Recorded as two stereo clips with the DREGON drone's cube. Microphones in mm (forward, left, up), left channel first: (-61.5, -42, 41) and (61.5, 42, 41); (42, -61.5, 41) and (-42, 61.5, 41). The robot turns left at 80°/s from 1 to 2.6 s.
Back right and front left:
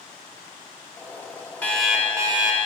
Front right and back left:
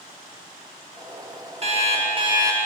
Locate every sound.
1.6 s an alarm clock: 140° left, 0.7 m; by 2.6 s 65° left, 0.7 m